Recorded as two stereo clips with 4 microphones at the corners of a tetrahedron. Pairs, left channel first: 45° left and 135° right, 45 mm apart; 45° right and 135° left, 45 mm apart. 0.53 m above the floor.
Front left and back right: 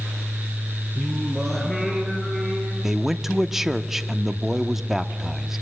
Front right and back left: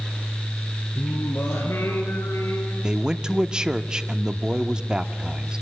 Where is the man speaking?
150° left, 0.7 m.